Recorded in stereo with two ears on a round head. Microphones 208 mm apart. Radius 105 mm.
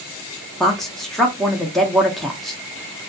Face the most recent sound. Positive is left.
turn(degrees=0)  # may be behind; listen again after turning